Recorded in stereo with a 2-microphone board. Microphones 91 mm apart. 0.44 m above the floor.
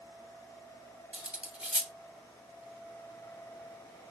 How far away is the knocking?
I don't hear knocking.